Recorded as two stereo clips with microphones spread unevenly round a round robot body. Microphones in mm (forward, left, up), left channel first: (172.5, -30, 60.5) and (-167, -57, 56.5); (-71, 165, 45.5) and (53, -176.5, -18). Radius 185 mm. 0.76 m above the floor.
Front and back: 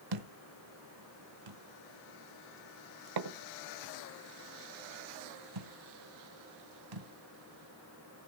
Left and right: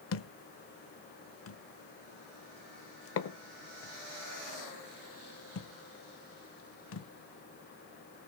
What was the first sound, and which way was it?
A thud, 155° left.